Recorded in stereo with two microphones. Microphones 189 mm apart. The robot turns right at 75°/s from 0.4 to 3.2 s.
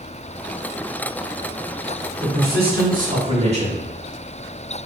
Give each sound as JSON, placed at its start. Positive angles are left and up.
{"t": 2.2, "sound": "a man speaking", "azimuth_deg": -120, "distance_m": 1.2}